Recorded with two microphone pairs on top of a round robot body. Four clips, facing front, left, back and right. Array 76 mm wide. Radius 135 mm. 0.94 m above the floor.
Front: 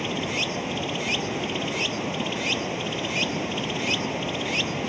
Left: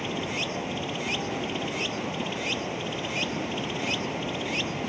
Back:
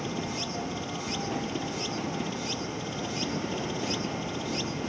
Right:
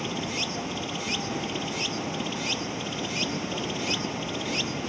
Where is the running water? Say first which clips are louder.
Left 1 dB, front 5 dB; 20° left.